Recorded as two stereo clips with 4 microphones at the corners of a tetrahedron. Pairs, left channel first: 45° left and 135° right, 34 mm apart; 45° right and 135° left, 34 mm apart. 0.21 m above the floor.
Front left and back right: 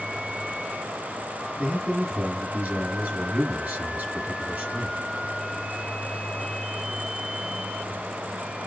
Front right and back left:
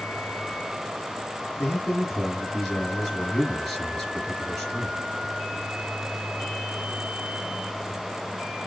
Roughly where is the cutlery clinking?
No cutlery clinking in this recording.